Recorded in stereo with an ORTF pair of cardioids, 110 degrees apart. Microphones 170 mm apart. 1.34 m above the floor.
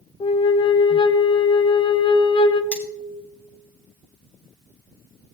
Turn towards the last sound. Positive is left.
turn(degrees=5)